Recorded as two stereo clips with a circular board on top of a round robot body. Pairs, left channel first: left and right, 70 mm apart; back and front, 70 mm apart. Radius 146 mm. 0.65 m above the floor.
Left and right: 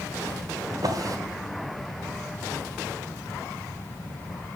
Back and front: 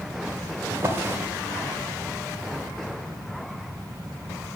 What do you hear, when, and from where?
0.7 s a drawer: 55° right, 1.3 m